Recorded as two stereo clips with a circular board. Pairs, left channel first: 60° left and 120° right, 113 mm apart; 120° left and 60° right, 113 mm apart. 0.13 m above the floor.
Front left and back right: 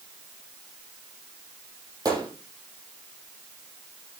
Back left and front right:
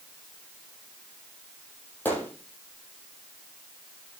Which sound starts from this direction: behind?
A gunshot, at 2.0 s.